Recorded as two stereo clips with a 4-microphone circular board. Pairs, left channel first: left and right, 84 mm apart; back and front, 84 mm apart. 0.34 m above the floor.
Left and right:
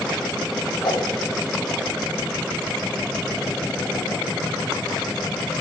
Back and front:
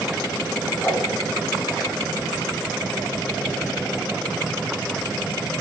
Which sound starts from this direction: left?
A whoosh, at 0.8 s.